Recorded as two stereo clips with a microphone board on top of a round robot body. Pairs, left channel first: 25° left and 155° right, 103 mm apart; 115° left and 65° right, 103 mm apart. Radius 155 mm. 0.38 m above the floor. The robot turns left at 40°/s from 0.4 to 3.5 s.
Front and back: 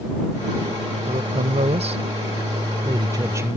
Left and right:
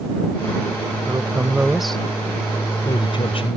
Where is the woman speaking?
125° right; by 3.6 s 135° left.